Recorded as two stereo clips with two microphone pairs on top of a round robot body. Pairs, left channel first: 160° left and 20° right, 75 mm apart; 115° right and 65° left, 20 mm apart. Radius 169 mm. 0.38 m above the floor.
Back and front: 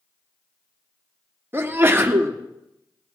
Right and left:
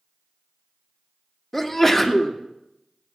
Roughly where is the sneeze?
Ahead right.